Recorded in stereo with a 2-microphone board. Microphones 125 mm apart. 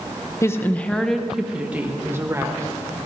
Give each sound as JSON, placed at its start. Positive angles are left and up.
{"t": 0.4, "sound": "a woman speaking", "side_deg": 25, "distance_m": 1.0}